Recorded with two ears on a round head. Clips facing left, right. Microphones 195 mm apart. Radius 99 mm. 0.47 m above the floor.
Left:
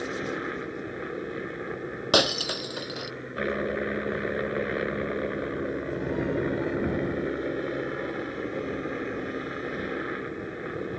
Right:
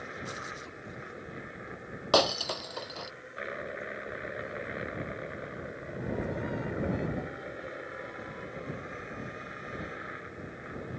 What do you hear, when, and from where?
0.0 s a helicopter: 60° left (ahead or behind)
2.1 s breaking glass: 15° left (ahead or behind)